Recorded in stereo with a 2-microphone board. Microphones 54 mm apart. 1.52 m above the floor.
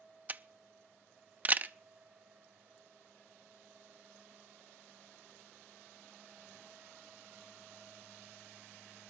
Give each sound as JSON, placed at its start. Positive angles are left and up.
{"t": 0.3, "sound": "a camera shutter", "side_deg": -30, "distance_m": 0.5}